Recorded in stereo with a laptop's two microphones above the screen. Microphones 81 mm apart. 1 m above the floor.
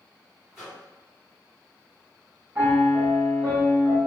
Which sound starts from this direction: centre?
A microwave, at 0.5 s.